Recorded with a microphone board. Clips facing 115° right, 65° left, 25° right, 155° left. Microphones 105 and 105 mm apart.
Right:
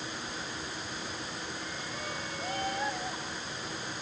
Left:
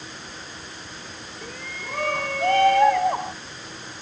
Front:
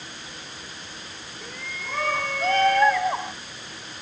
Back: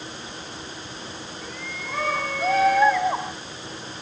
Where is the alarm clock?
I don't hear an alarm clock.